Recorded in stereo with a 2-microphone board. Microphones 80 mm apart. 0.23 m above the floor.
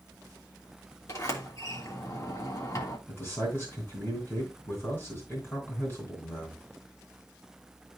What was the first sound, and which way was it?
A sliding door, 45° left (ahead or behind).